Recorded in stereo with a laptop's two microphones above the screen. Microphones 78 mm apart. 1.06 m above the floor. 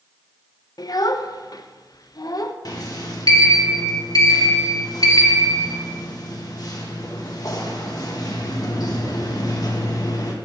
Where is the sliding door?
50° left (ahead or behind), 1.4 m.